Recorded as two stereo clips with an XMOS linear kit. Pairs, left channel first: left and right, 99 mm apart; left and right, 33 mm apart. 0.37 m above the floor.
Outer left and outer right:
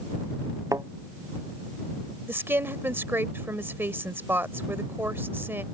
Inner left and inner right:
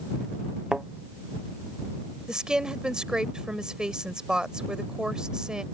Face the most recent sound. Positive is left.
turn(degrees=-25)  # may be behind; listen again after turning